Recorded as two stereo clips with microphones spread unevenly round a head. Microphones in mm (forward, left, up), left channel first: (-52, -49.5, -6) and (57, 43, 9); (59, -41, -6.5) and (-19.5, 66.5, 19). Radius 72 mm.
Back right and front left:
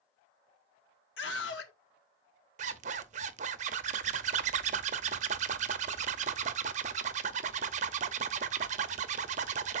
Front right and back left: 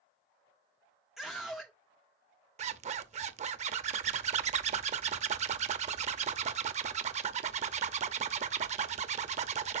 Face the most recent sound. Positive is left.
turn(degrees=85)